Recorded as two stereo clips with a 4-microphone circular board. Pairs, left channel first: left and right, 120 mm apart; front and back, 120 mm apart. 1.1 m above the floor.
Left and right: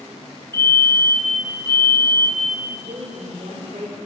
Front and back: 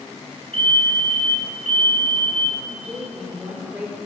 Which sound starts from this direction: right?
A woman speaking, at 2.7 s.